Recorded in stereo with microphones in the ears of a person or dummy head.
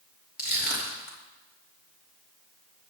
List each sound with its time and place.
0.4 s crushing: 50° left (ahead or behind), 3 m